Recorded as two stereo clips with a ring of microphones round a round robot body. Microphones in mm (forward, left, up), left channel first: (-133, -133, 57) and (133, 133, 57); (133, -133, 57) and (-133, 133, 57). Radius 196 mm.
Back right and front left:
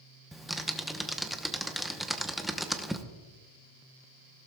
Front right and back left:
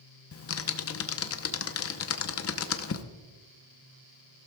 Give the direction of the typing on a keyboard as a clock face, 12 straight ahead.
1 o'clock.